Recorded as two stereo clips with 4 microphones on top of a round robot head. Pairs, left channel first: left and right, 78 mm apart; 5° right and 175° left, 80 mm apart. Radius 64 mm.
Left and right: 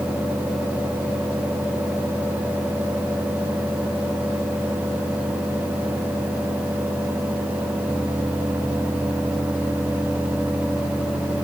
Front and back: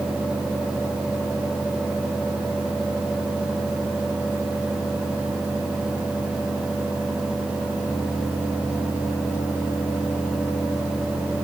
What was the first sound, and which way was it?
Only background noise.